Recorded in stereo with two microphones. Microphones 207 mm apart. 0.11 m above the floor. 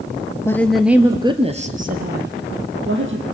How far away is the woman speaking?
About 2 m.